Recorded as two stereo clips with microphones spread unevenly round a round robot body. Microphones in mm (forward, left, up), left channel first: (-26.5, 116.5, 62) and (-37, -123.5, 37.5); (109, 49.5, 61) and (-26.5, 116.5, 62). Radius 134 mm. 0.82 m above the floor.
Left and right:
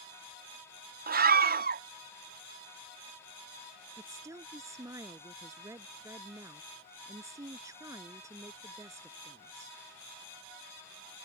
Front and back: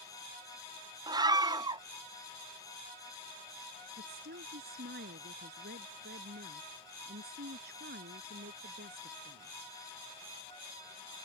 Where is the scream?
140° right.